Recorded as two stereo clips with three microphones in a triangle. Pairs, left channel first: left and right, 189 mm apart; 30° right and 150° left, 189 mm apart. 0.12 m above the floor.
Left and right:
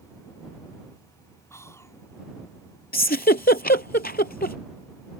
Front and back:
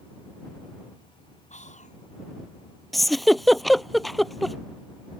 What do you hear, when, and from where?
1.5 s whispering: 15° left
2.9 s a giggle: 60° left